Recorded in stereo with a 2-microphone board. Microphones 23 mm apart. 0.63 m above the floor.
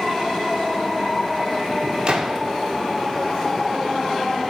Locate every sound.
2.1 s a gunshot: 45° right (ahead or behind), 0.8 m